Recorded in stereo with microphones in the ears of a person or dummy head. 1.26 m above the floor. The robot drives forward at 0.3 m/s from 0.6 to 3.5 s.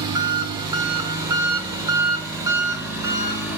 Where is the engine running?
20° right (ahead or behind), 1.0 m; by 3.6 s 10° right (ahead or behind), 1.7 m.